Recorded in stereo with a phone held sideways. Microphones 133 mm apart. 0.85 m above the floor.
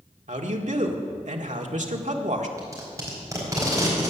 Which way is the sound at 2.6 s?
25° right (ahead or behind).